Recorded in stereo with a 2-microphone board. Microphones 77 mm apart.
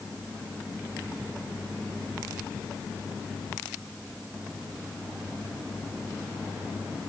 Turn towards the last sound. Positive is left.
No sound to turn to.